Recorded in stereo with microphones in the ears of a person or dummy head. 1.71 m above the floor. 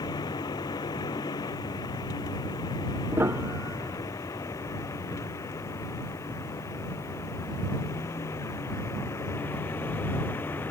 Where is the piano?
20° right (ahead or behind).